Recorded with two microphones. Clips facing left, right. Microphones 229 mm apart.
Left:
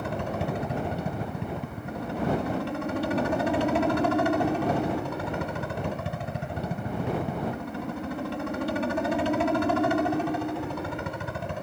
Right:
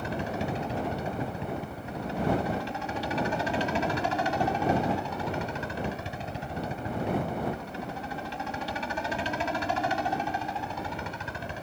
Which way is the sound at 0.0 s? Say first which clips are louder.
Left 1 dB; 60° left (ahead or behind).